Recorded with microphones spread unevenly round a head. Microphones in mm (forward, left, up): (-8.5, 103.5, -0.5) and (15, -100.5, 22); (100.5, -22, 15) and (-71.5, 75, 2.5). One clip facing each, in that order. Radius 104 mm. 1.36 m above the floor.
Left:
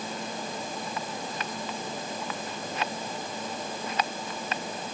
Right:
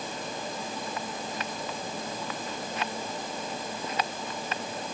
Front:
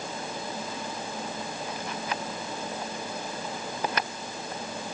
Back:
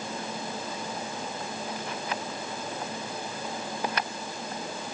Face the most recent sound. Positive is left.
No sound to turn to.